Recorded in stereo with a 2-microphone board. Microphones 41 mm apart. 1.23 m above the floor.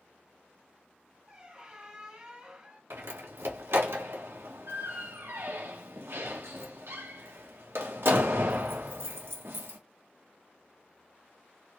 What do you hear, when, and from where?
1.3 s a squeak: 20° right (ahead or behind), 1.2 m
2.9 s a door slam: 65° right (ahead or behind), 0.8 m